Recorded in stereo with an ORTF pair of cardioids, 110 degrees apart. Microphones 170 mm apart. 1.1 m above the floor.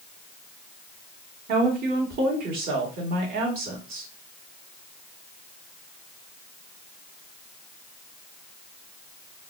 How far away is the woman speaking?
About 1.6 m.